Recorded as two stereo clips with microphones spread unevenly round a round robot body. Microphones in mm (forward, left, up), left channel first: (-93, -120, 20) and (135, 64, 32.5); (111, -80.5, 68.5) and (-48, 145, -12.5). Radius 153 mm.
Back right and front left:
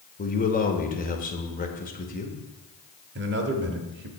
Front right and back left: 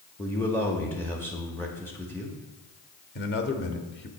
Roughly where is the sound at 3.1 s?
Ahead.